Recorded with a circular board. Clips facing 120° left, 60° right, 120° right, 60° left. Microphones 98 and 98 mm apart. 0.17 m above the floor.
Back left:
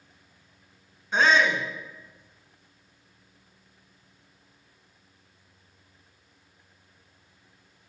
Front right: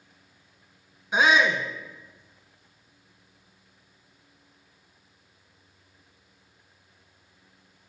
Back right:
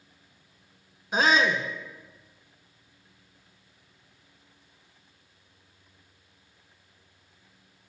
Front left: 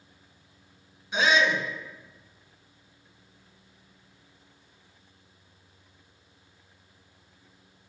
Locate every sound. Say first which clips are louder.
1.1 s a shout: even, back right 1 dB; 135° right, 1.4 m